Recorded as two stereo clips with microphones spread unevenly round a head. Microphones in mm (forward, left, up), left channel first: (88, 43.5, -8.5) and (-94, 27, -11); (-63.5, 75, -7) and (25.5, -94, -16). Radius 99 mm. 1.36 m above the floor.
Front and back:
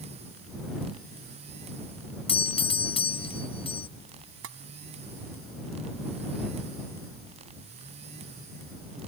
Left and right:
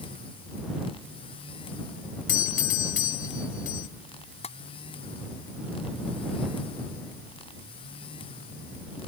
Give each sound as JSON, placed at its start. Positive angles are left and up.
{"t": 2.3, "sound": "a doorbell", "azimuth_deg": 65}
{"t": 4.4, "sound": "tapping", "azimuth_deg": 175}